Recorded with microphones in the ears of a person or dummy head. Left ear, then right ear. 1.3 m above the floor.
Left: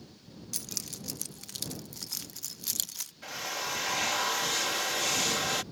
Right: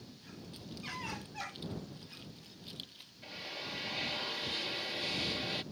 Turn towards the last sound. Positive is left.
turn(degrees=45)  # may be behind; listen again after turning